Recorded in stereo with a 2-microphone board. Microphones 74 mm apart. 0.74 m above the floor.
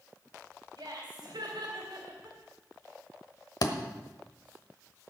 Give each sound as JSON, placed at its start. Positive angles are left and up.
{"t": 0.8, "sound": "laughter", "side_deg": -80, "distance_m": 3.5}
{"t": 3.6, "sound": "a thud", "side_deg": 65, "distance_m": 1.2}